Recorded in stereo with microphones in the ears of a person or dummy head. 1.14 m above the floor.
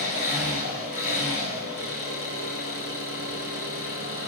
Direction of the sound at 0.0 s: 50° left (ahead or behind).